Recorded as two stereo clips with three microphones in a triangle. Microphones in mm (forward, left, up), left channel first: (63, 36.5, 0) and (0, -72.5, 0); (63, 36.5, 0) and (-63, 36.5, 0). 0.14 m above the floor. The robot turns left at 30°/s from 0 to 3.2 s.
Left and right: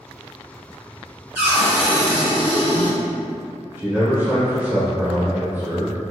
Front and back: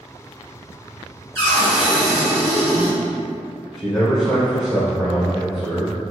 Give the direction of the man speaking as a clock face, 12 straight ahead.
3 o'clock.